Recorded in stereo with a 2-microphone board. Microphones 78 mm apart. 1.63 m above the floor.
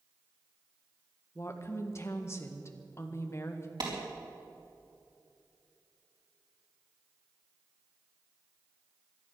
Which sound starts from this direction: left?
A woman speaking, at 1.4 s.